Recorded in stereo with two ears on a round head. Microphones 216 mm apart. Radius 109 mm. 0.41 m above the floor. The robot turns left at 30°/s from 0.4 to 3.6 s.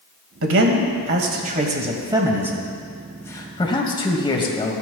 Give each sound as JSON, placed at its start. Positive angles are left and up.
{"t": 0.4, "sound": "a man speaking", "azimuth_deg": -110, "distance_m": 1.8}